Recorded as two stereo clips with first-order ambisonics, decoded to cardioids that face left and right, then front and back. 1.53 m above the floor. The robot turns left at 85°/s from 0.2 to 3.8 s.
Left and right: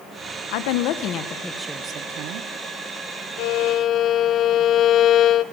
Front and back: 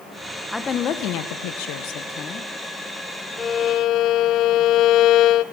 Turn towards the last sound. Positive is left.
turn(degrees=40)